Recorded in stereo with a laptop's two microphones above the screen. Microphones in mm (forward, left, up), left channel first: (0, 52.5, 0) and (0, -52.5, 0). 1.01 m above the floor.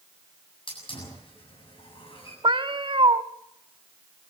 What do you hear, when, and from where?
0.7 s a hiss: 55° left (ahead or behind), 7.5 m
2.4 s a cat meowing: 50° right (ahead or behind), 1.1 m